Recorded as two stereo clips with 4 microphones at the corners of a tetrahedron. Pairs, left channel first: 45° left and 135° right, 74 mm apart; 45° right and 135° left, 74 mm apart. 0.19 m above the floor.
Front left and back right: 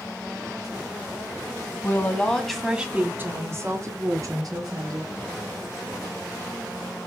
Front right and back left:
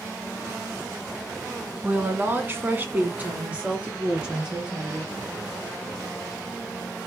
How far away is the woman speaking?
About 1.9 m.